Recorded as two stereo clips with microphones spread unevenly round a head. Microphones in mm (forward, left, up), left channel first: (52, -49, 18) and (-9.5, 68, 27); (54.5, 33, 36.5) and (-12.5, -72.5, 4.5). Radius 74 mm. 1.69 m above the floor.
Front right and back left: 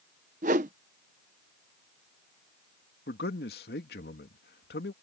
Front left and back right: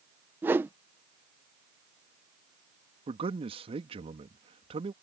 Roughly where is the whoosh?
Behind left.